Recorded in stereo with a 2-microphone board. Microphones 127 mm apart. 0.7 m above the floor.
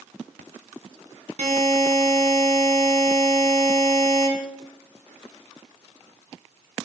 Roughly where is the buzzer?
Right.